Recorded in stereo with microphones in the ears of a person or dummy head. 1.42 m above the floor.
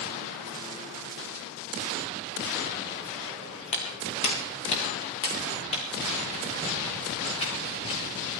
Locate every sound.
3.7 s footsteps: 30° left (ahead or behind), 4.5 m